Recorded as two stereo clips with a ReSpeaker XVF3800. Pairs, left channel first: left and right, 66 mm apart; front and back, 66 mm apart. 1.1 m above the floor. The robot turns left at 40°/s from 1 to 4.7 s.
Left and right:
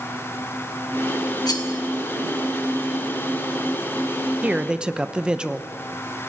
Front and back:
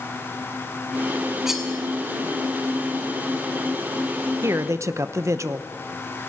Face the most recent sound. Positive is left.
turn(degrees=-160)